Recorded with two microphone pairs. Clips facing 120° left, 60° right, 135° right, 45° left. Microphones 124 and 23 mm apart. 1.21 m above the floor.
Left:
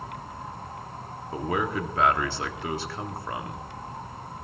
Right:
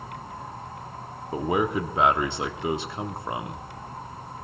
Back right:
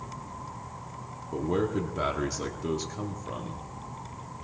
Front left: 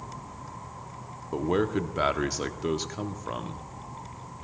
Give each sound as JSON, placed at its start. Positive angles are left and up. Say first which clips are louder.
{"t": 1.3, "sound": "a man speaking", "louder": "right 3 dB, front left 2 dB", "azimuth_deg": 5, "distance_m": 0.7}